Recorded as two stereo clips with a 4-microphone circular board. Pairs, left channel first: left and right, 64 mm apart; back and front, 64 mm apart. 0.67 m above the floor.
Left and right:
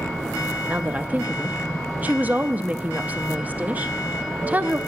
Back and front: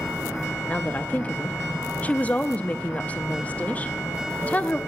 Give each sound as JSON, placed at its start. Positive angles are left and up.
{"t": 0.7, "sound": "a woman speaking", "azimuth_deg": -130, "distance_m": 0.6}